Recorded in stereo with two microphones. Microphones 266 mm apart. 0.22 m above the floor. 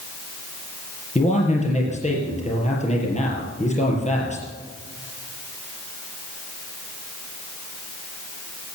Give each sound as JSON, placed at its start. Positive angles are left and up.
{"t": 1.1, "sound": "a man speaking", "side_deg": 25, "distance_m": 5.0}